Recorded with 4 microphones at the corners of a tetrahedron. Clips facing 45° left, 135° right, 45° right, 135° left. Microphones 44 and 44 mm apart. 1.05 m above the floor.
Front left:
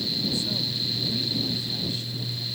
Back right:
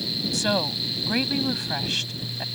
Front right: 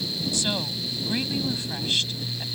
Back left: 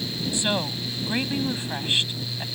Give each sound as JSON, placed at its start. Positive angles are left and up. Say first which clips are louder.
{"t": 0.3, "sound": "a woman speaking", "louder": "back right 5 dB, back left 4 dB", "azimuth_deg": -155}